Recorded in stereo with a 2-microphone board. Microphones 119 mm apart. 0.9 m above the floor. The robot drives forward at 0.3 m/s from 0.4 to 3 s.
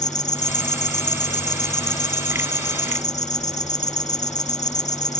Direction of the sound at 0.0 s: 85° left.